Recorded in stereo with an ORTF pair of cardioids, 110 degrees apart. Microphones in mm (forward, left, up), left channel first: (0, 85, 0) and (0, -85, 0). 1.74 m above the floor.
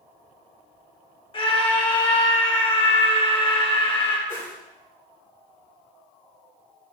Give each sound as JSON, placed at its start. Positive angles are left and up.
{"t": 1.3, "sound": "a scream", "azimuth_deg": 35, "distance_m": 5.0}
{"t": 4.3, "sound": "a whoosh", "azimuth_deg": 15, "distance_m": 6.0}